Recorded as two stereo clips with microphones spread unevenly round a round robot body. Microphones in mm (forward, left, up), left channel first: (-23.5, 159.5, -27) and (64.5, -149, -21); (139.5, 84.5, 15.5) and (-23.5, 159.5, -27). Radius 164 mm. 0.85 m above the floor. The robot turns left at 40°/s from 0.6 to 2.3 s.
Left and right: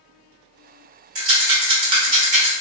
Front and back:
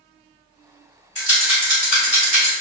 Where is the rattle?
85° right, 1.6 m; by 2.5 s 130° right, 1.6 m.